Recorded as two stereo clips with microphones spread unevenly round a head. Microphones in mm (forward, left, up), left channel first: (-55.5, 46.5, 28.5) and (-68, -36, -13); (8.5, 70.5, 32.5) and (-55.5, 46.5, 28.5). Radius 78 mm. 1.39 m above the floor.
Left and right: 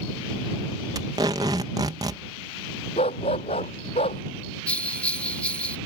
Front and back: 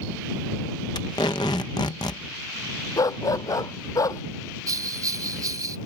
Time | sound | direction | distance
0.9 | tape being pulled | 35° right | ?
3.0 | a dog barking | 55° left | ?
4.7 | a bell | 165° left | ?